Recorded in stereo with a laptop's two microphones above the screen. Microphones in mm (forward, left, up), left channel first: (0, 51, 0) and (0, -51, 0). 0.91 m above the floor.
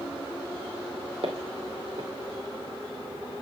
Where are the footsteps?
60° right (ahead or behind), 2.0 m.